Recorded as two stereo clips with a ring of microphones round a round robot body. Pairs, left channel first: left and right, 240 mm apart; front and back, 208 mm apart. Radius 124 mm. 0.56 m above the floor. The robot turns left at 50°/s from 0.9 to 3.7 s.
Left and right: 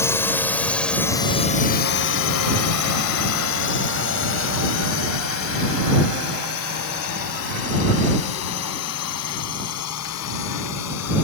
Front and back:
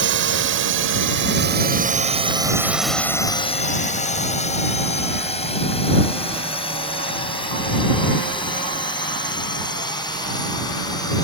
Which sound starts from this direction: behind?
A drone, at 0.0 s.